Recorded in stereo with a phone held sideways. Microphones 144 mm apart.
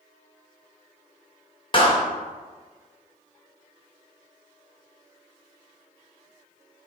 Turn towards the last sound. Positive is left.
turn(degrees=35)  # may be behind; listen again after turning